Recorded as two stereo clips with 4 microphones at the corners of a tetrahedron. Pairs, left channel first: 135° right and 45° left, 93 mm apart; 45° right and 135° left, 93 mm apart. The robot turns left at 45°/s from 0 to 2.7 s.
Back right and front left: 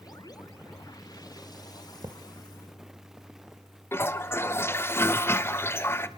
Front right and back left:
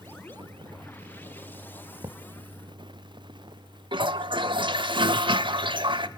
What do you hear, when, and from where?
2.0 s a thud: 95° left, 1.2 m; by 2.2 s 90° left, 1.2 m
3.9 s a toilet flushing: 160° left, 0.9 m